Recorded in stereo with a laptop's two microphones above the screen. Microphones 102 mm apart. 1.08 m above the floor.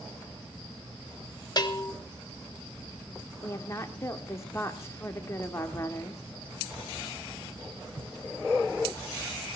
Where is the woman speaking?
25° left (ahead or behind), 2.5 m.